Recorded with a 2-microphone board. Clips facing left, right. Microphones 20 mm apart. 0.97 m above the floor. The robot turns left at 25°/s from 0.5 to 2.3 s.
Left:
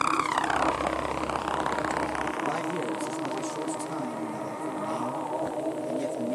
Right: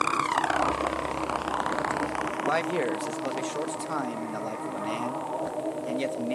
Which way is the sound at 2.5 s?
55° right (ahead or behind).